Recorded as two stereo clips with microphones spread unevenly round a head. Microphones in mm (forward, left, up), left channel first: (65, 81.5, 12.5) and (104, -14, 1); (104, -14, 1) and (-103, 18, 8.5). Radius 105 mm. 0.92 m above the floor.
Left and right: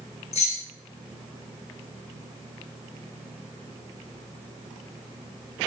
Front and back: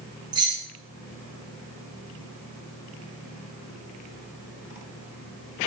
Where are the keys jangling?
100° left, 0.8 m.